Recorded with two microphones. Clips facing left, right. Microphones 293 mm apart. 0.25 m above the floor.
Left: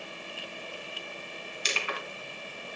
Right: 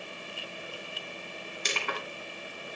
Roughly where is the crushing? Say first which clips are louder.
Right 1 dB; right.